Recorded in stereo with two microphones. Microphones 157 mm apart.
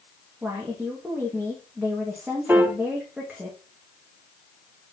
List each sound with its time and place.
0.4 s a woman speaking: 10° right (ahead or behind), 1.8 m
2.5 s a piano: 15° right (ahead or behind), 0.8 m